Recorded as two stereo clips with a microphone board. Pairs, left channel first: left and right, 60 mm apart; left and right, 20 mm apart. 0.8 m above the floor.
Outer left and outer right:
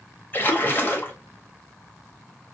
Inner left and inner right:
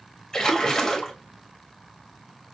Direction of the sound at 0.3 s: 35° left (ahead or behind).